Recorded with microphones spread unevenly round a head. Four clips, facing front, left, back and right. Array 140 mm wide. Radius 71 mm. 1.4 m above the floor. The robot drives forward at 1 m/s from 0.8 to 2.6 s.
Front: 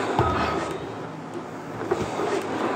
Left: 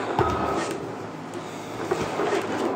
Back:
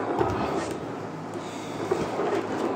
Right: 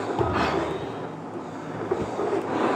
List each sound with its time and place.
0.2 s a thud: 40° left, 2 m